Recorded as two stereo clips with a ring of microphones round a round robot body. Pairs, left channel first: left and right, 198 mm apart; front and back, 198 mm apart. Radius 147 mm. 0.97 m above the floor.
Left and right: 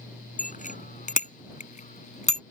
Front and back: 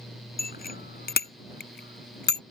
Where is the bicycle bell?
40° left; by 2.4 s 35° left.